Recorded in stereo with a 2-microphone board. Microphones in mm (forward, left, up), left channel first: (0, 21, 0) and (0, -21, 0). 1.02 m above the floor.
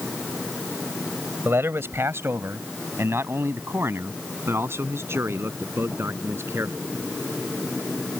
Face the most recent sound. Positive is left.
turn(degrees=-75)  # may be behind; listen again after turning